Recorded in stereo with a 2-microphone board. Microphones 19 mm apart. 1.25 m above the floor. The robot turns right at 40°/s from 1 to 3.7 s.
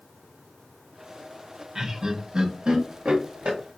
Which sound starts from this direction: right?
Laughter, at 1.8 s.